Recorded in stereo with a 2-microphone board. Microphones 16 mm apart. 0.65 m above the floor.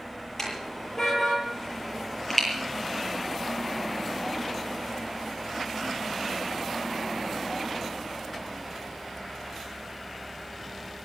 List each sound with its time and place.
0.4 s a car horn: 10° left (ahead or behind), 9 m; by 2.5 s centre (ahead or behind), 8.5 m